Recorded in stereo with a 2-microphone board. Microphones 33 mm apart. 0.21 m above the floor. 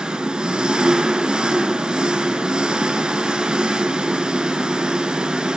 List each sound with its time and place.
0.0 s an engine running: 25° right (ahead or behind), 1.1 m